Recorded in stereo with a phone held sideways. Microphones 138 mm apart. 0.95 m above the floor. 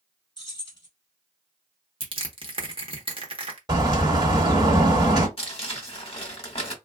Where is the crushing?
40° right (ahead or behind), 0.9 m.